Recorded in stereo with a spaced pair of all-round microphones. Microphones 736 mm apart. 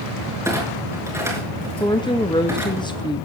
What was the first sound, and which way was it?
A clunk, 5° right (ahead or behind).